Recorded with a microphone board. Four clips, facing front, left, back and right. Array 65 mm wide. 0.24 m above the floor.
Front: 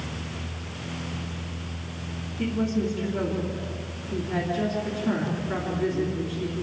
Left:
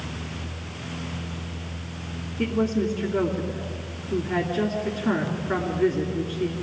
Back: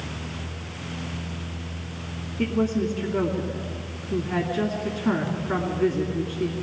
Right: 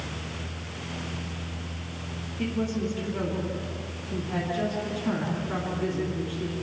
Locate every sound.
2.4 s a woman speaking: 150° left, 3 m